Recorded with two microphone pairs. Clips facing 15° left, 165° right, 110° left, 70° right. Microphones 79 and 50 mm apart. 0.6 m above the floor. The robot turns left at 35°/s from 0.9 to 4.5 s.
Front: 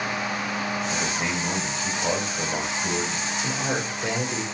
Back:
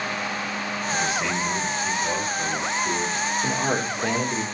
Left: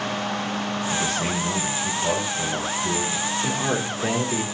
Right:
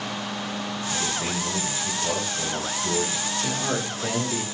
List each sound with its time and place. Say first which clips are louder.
0.9 s a man speaking: back 2 dB, left 3 dB; 75° left, 1.8 m; by 3.3 s 10° right, 1.8 m
3.4 s a man speaking: back 2 dB, left 2 dB; straight behind, 1.0 m; by 4.4 s 145° left, 1.0 m